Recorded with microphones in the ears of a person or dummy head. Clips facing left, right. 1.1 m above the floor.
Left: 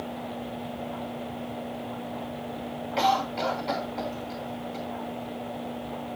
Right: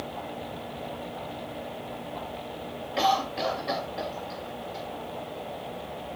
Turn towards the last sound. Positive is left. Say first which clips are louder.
# even
turn(degrees=-5)  # may be behind; listen again after turning